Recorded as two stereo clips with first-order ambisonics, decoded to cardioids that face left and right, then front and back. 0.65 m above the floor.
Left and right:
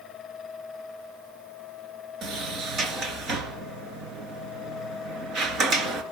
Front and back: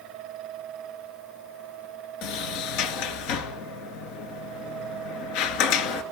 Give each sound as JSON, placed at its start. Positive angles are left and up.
{"t": 2.2, "sound": "a sliding door", "azimuth_deg": -30, "distance_m": 2.5}